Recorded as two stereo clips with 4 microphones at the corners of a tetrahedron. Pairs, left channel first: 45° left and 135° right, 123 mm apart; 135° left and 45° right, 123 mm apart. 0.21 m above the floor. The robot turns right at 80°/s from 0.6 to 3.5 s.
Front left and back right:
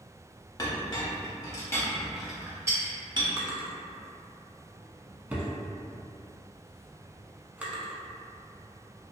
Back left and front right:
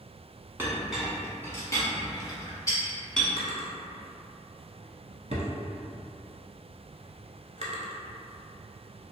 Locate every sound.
0.6 s a clink: 10° left, 0.8 m; by 3.3 s 140° right, 0.8 m
3.4 s a drawer: 70° right, 0.6 m; by 9.1 s 60° right, 0.6 m